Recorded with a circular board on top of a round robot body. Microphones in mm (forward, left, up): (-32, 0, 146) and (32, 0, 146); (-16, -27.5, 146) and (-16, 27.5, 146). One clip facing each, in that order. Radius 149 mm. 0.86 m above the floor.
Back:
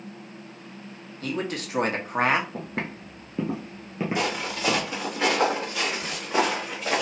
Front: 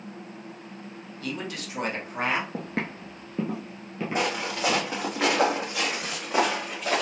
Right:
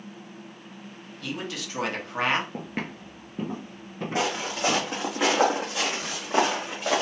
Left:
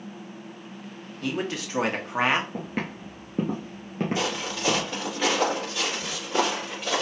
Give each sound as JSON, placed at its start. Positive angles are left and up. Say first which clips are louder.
{"t": 1.2, "sound": "a man speaking", "louder": "back 4 dB, left 5 dB", "azimuth_deg": 135, "distance_m": 1.9}
{"t": 2.5, "sound": "footsteps", "louder": "front 1 dB, left 2 dB", "azimuth_deg": -15, "distance_m": 1.0}
{"t": 4.2, "sound": "footsteps", "louder": "front 3 dB, right 2 dB", "azimuth_deg": -50, "distance_m": 2.5}